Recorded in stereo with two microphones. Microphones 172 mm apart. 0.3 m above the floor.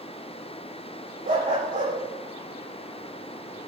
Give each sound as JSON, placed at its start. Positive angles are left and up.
{"t": 1.2, "sound": "a dog barking", "side_deg": -55, "distance_m": 6.5}